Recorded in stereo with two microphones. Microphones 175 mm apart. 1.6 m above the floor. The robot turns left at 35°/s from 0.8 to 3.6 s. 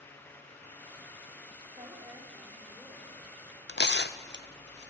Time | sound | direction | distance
1.8 | a woman speaking | 145° right | 4.5 m
3.7 | tearing paper | 85° left | 0.7 m